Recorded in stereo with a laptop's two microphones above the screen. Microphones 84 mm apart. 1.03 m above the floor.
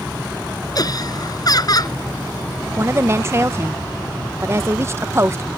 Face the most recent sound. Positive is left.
turn(degrees=-30)  # may be behind; listen again after turning